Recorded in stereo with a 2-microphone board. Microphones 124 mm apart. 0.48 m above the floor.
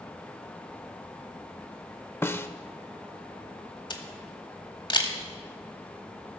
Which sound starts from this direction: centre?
A snare drum, at 2.2 s.